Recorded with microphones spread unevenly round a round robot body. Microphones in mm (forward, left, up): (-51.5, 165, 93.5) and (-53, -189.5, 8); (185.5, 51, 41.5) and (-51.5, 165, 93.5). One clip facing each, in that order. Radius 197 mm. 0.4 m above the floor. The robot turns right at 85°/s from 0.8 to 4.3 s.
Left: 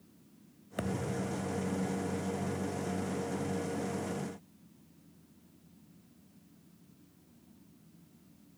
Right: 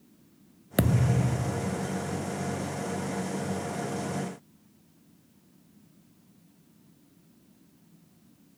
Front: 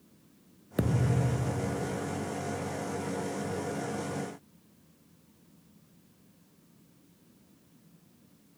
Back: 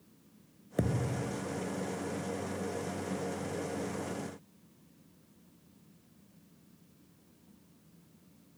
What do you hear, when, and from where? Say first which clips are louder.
0.8 s a thud: right 8 dB, front 3 dB; 110° right; by 2.0 s 10° right